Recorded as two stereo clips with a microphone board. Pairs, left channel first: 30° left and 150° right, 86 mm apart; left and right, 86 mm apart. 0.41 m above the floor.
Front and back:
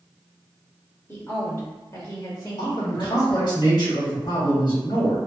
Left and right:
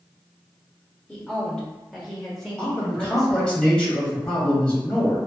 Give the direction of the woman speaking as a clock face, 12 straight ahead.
11 o'clock.